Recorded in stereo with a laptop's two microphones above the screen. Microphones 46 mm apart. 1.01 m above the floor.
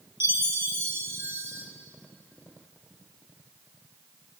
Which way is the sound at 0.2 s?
60° right (ahead or behind).